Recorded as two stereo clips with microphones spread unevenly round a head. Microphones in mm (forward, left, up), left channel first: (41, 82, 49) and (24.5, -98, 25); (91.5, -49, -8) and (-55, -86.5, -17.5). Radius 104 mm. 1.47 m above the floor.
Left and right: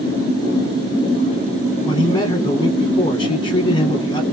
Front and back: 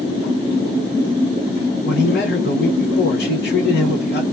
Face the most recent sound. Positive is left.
turn(degrees=20)